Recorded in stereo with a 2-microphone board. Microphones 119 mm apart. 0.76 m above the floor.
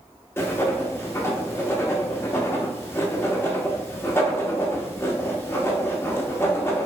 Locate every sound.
0.4 s writing: 20° left (ahead or behind), 0.5 m